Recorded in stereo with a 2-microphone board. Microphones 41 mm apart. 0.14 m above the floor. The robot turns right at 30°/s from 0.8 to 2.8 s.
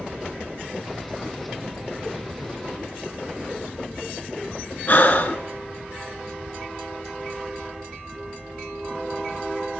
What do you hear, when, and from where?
4.9 s breathing: 45° left (ahead or behind), 0.8 m